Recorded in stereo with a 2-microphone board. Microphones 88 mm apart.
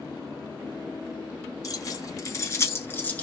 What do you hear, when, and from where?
1.6 s keys jangling: 40° left (ahead or behind), 1.1 m; by 3.2 s 20° left (ahead or behind), 0.9 m